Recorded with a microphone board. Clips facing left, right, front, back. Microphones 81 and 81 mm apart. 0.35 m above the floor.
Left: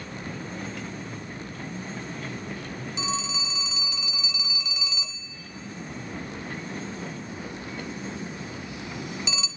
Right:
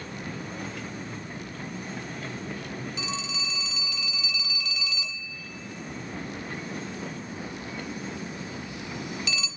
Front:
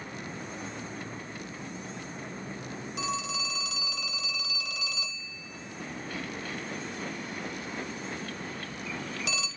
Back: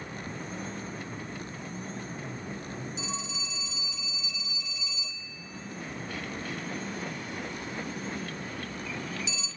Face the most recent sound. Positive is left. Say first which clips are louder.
# left 3 dB, front 5 dB
turn(degrees=25)